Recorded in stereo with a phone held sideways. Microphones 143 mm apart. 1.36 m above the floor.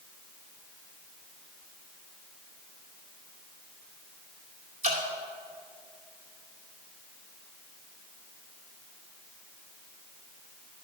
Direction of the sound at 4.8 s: 50° right (ahead or behind).